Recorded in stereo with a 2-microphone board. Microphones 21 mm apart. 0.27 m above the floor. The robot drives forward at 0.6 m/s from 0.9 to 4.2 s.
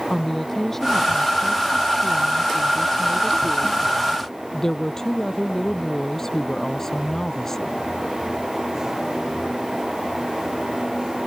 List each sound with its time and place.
0.1 s a woman speaking: 15° left (ahead or behind); by 7.8 s 20° left (ahead or behind)